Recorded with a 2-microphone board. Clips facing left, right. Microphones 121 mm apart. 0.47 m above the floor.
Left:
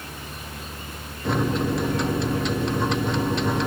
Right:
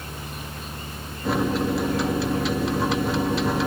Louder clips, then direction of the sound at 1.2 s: Right 1 dB; 5° right (ahead or behind).